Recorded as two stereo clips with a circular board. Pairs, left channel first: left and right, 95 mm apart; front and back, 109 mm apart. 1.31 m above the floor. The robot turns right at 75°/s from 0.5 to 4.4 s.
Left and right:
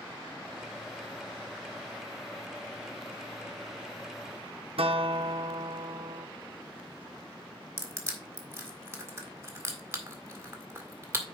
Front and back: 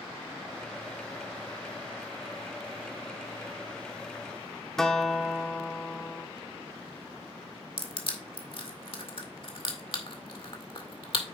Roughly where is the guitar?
Right.